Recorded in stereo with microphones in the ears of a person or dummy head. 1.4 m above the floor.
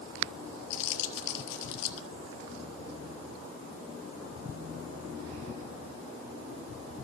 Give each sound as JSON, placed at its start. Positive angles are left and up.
{"t": 0.7, "sound": "crumpling", "side_deg": 65, "distance_m": 2.5}